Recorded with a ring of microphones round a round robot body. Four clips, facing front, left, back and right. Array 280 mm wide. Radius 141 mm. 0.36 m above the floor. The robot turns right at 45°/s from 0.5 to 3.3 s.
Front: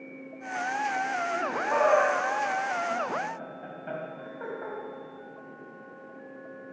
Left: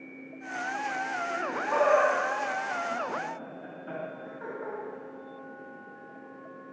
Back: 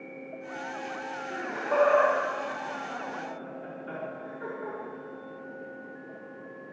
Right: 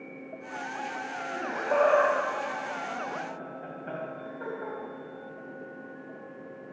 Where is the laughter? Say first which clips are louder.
Right 3 dB, back 2 dB; 115° right, 2.5 m; by 4.8 s 25° right, 2.5 m.